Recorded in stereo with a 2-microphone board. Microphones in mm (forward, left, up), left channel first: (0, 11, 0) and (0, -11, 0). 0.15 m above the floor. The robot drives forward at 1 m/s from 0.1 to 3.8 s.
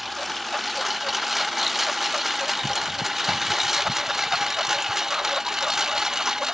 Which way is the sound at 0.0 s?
5° right (ahead or behind).